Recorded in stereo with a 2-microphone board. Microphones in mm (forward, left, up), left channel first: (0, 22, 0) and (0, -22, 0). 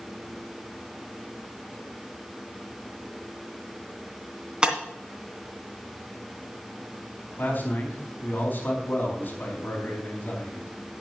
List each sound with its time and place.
4.6 s breaking glass: 20° right (ahead or behind), 2.5 m
7.4 s a man speaking: 50° left (ahead or behind), 4 m